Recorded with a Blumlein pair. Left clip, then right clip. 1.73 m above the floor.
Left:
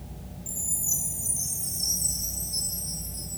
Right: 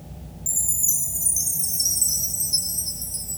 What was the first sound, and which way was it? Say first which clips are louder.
A chime: right 6 dB; 30° right.